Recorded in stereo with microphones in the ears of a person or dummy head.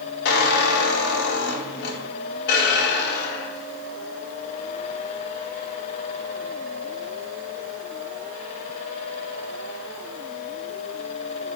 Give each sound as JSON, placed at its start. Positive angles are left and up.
{"t": 0.2, "sound": "a squeak", "side_deg": 60, "distance_m": 1.3}